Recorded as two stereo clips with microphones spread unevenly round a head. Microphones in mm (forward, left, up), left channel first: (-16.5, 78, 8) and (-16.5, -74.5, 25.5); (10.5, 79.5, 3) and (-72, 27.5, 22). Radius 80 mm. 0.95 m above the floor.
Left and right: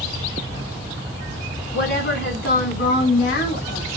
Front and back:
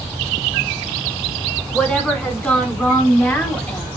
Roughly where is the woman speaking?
Behind left.